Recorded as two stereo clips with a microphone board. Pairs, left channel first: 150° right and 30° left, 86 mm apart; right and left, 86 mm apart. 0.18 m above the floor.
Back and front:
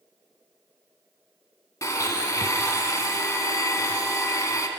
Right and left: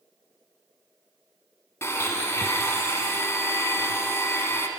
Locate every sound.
1.8 s a blender: 130° right, 0.6 m